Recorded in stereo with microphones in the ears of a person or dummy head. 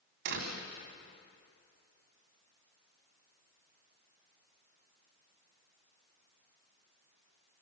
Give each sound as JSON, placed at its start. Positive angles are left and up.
{"t": 0.2, "sound": "a door slam", "side_deg": -60, "distance_m": 2.5}